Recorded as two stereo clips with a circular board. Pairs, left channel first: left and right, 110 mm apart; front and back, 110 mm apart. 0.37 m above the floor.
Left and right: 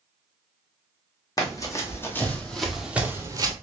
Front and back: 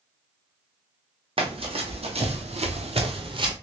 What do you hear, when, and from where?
1.4 s running footsteps: 145° left, 1.3 m; by 3.5 s 135° right, 0.7 m